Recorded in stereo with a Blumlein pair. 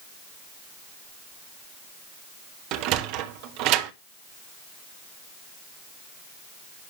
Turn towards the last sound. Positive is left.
turn(degrees=-40)